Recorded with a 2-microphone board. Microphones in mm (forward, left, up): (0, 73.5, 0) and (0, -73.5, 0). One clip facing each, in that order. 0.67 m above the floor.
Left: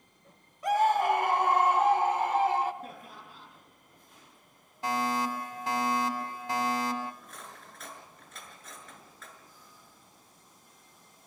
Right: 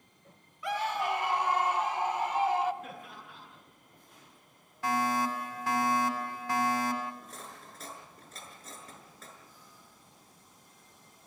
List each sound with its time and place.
0.6 s a scream: 40° left (ahead or behind), 0.7 m; by 2.7 s 50° left (ahead or behind), 2.0 m
2.8 s laughter: 35° left (ahead or behind), 9 m
4.8 s a fire alarm: 20° left (ahead or behind), 3 m
7.2 s cutlery clinking: 30° right (ahead or behind), 5.5 m